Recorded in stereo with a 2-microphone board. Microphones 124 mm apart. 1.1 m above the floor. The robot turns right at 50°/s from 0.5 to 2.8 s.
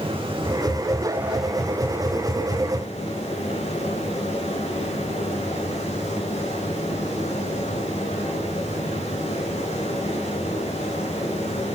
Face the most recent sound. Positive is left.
turn(degrees=65)